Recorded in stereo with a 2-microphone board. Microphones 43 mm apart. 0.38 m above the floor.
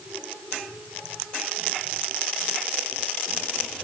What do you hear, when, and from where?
Only background noise.